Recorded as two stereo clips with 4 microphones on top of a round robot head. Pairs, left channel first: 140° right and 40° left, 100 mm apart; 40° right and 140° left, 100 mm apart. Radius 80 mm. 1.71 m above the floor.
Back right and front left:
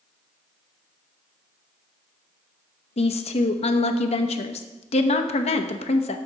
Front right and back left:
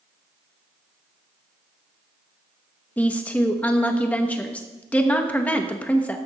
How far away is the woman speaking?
About 0.8 m.